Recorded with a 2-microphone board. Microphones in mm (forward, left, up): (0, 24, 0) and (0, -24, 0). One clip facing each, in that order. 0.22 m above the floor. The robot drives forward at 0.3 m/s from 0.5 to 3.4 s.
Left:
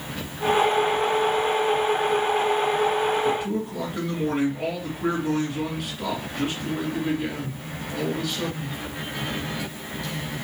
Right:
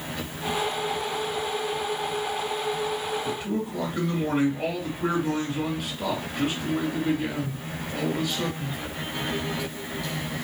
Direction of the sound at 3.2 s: Centre (ahead or behind).